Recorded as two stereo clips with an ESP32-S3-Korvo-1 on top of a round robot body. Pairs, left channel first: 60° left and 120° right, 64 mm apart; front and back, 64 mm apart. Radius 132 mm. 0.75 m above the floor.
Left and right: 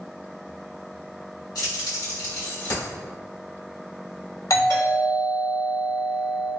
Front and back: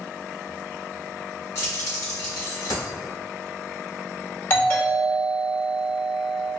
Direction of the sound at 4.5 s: 50° left.